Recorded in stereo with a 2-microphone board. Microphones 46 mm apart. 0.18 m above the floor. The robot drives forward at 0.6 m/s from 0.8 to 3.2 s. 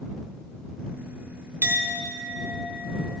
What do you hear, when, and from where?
1.6 s a clink: 45° right (ahead or behind), 0.8 m; by 2.5 s 40° right (ahead or behind), 0.9 m